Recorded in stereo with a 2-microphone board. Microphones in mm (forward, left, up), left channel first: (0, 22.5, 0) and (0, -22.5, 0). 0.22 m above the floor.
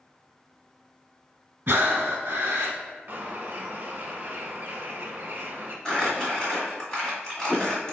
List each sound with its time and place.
1.7 s breathing: 55° right (ahead or behind), 0.9 m
3.1 s a bird: 45° right (ahead or behind), 0.7 m
5.8 s crumpling: 10° left (ahead or behind), 1.6 m